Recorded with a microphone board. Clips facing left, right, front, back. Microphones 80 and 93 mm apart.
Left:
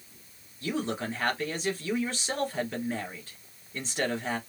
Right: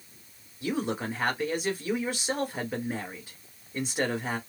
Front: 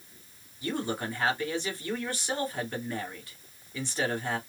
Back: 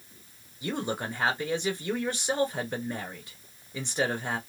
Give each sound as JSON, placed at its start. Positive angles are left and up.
{"t": 0.6, "sound": "a man speaking", "azimuth_deg": -150, "distance_m": 1.4}